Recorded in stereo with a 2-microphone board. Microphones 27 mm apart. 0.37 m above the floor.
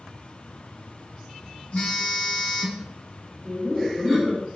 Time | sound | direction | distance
1.7 | a phone buzzing | 55° left (ahead or behind) | 1.7 m
3.5 | laughter | 25° right (ahead or behind) | 1.6 m